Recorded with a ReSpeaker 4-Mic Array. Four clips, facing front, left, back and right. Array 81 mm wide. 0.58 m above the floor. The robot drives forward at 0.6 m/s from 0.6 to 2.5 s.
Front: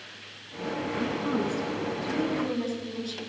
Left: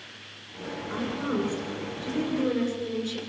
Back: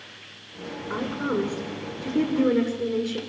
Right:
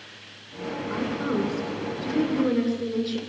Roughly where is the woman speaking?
Behind right.